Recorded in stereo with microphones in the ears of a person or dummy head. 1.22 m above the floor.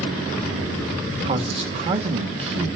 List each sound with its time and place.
1.2 s a man speaking: 35° right (ahead or behind), 1.6 m